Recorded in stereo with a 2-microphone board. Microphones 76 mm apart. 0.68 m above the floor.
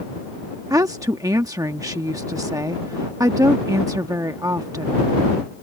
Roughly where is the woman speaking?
Right.